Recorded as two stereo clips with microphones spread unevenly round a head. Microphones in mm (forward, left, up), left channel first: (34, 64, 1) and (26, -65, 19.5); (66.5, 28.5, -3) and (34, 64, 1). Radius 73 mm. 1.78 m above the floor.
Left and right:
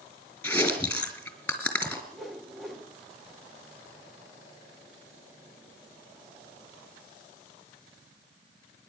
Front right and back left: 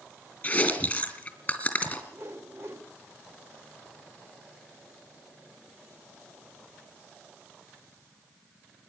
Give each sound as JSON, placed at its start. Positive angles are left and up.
{"t": 0.4, "sound": "chewing", "azimuth_deg": 5, "distance_m": 4.0}
{"t": 2.1, "sound": "a whoosh", "azimuth_deg": -175, "distance_m": 1.3}